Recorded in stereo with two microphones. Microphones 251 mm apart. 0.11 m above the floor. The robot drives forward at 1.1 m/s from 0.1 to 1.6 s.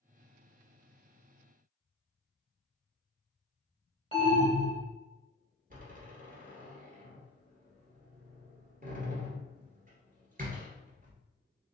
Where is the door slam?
35° right (ahead or behind), 1.5 m.